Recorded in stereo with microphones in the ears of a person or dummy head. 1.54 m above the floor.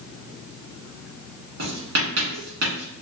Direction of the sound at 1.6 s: 60° right (ahead or behind).